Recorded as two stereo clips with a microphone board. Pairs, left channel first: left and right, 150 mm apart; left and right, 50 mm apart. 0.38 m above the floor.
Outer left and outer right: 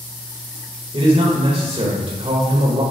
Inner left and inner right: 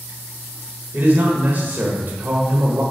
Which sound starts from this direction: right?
A man speaking, at 0.9 s.